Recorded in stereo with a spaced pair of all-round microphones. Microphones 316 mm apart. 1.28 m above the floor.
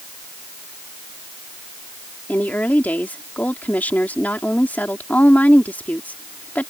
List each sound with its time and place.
2.3 s a woman speaking: 5° left (ahead or behind)